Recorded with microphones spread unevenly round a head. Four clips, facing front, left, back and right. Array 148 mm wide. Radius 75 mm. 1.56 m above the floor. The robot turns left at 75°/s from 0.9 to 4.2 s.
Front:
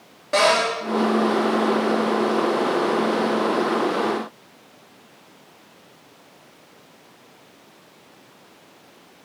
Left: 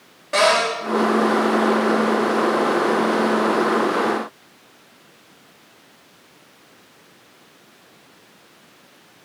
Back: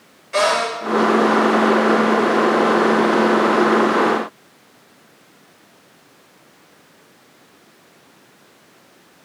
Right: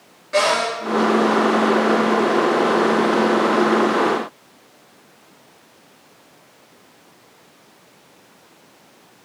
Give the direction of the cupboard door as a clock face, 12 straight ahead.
11 o'clock.